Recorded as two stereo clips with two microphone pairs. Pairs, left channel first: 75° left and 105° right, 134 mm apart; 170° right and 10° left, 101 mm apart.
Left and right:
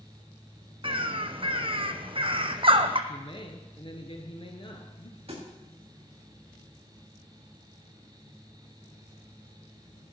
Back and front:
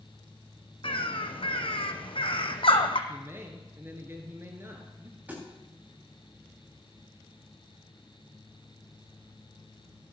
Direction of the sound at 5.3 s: 60° right.